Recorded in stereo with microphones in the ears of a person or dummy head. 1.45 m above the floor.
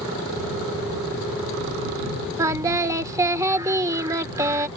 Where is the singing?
20° right (ahead or behind).